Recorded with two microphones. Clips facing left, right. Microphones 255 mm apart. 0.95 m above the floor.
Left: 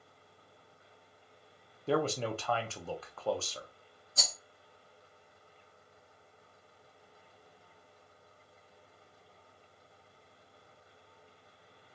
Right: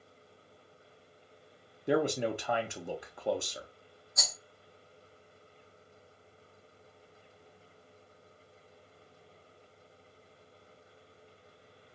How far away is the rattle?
About 1.0 m.